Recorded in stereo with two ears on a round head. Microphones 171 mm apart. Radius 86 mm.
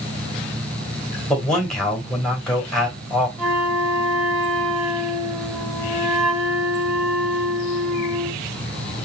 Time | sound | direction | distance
1.3 | a man speaking | 5° left (ahead or behind) | 3.5 m
3.4 | a flute | 5° right (ahead or behind) | 3 m